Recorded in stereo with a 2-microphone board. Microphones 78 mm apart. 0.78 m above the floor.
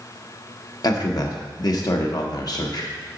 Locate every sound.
0.8 s a man speaking: 55° left (ahead or behind), 1.0 m